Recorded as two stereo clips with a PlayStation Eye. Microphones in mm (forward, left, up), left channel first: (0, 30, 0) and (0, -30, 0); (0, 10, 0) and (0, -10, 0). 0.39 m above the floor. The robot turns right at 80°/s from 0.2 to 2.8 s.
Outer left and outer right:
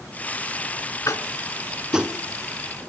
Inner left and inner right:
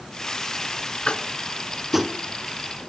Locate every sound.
1.1 s tapping: 60° left (ahead or behind), 1.4 m; by 2.2 s 30° right (ahead or behind), 1.4 m